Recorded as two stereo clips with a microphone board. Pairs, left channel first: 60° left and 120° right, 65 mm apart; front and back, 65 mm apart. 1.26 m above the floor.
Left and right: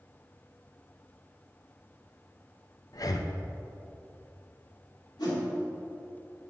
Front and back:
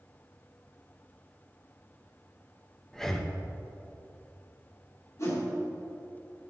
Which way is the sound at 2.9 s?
85° left.